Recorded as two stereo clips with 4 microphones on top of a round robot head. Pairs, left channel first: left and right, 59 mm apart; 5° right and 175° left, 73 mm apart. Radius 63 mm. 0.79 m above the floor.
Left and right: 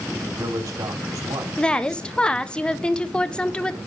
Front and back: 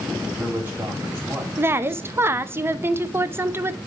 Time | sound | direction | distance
0.1 | a man speaking | 120° right | 4 m
1.6 | a woman speaking | 155° left | 0.9 m